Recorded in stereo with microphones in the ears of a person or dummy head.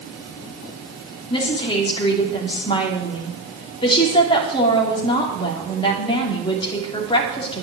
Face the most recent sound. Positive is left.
turn(degrees=25)  # may be behind; listen again after turning